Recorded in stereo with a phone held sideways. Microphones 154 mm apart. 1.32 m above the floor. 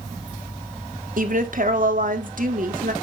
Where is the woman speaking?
60° right (ahead or behind), 1.3 m.